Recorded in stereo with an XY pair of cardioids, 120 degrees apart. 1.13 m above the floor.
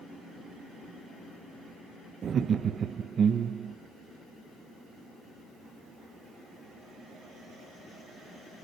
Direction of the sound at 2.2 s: 45° right.